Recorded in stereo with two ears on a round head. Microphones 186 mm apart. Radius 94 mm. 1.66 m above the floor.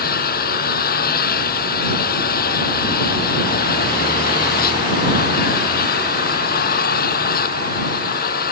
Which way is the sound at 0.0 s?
45° left (ahead or behind).